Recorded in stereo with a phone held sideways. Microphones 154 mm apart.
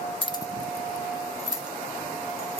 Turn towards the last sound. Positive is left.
turn(degrees=-35)  # may be behind; listen again after turning